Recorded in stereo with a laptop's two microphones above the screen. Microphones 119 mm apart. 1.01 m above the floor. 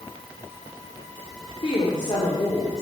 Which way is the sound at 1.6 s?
45° left (ahead or behind).